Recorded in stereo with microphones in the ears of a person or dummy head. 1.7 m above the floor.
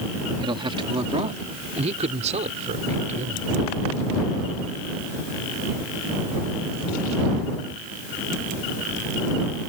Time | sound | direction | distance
0.4 | a man speaking | 30° right (ahead or behind) | ?